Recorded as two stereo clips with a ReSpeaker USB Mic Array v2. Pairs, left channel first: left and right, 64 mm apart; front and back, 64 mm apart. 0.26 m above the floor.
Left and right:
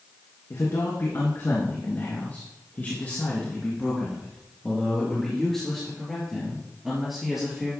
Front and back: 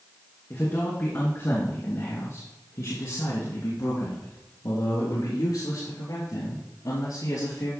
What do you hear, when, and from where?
0.5 s a man speaking: 55° left, 2.5 m; by 7.7 s 5° right, 4.5 m